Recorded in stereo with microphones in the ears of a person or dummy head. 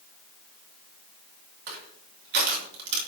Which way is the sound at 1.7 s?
55° right (ahead or behind).